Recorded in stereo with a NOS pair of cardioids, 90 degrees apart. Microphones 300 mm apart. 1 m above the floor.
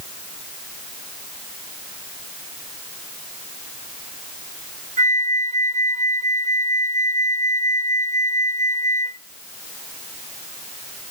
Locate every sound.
5.0 s a flute: 25° right, 1.4 m